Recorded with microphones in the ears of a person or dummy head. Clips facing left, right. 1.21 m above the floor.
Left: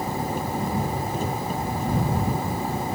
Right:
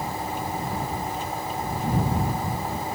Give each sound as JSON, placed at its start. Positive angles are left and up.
{"t": 0.0, "sound": "an engine running", "side_deg": 35}